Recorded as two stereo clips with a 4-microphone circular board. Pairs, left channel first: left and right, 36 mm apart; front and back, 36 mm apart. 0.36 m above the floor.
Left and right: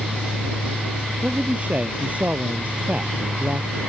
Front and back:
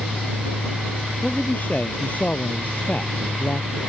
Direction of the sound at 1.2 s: 45° right.